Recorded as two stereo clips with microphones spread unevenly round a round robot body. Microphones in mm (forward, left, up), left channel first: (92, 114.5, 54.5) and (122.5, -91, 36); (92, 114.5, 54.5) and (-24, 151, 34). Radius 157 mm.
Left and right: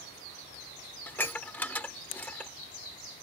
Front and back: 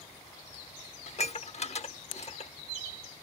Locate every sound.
1.1 s dishes clattering: 15° left